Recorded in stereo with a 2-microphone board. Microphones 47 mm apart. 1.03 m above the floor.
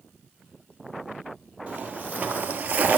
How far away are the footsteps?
About 1.7 m.